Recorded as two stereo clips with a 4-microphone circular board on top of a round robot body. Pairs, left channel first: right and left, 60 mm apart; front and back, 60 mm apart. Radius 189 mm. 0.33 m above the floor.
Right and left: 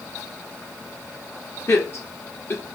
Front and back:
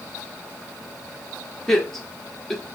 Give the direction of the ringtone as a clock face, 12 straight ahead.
No ringtone in this recording.